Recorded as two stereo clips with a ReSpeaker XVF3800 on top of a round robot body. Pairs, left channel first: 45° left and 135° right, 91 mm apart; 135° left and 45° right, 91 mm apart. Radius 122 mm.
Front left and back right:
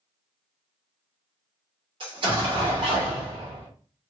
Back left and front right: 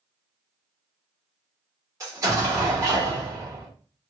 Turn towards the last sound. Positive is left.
turn(degrees=-105)